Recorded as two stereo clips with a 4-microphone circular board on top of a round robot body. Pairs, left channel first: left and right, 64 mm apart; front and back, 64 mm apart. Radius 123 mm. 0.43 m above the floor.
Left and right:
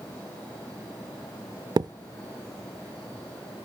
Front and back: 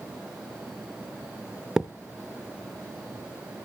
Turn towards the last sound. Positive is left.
turn(degrees=-95)